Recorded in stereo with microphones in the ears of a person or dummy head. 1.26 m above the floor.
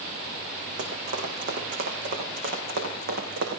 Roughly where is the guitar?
I don't hear a guitar.